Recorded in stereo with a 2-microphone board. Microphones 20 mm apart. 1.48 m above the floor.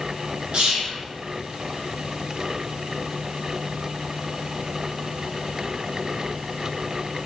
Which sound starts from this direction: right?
Whispering, at 0.5 s.